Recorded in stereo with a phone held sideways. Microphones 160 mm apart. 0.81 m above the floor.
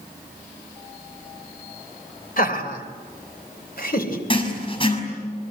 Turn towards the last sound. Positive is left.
turn(degrees=30)  # may be behind; listen again after turning